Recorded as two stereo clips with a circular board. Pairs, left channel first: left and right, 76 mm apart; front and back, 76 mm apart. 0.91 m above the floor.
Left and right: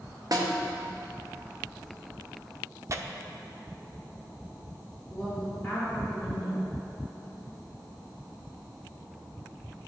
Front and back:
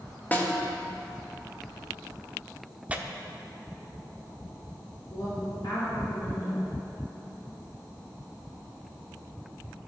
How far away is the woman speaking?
About 3 m.